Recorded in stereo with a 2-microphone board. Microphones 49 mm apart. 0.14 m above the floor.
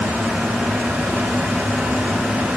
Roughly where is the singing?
No singing in this recording.